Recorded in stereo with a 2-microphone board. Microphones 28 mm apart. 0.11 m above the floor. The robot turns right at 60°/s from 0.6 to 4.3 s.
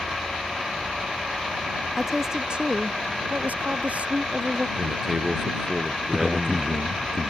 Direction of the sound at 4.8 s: 10° right (ahead or behind).